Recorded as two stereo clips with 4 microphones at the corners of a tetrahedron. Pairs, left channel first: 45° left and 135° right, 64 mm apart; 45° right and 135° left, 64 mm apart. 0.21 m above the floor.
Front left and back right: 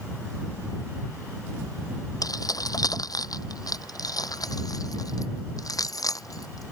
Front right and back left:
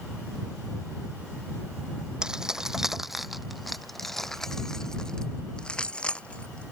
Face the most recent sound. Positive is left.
turn(degrees=25)